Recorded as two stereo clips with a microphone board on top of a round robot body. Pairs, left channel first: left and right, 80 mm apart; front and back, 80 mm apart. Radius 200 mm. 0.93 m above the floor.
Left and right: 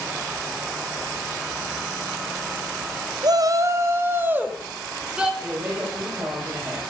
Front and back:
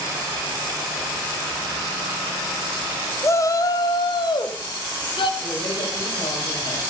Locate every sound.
3.2 s a shout: 55° right, 1.6 m; by 5.3 s 10° right, 3 m
5.4 s a man speaking: 20° right, 7.5 m